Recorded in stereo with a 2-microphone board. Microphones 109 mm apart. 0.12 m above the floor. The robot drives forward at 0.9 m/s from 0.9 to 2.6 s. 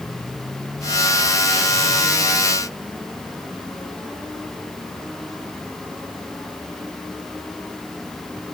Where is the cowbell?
I don't hear a cowbell.